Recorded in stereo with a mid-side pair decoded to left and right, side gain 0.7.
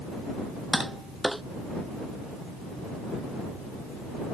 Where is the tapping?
5° right.